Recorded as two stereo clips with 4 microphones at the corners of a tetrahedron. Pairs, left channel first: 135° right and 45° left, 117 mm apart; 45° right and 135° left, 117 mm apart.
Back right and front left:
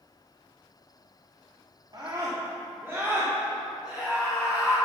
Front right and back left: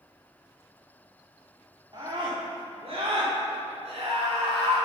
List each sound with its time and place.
1.9 s a scream: 95° left, 2.5 m; by 4.8 s 135° left, 5 m